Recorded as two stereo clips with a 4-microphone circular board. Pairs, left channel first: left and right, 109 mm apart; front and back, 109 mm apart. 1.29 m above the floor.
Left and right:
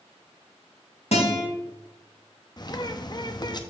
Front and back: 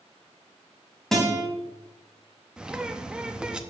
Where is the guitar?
85° left, 3 m.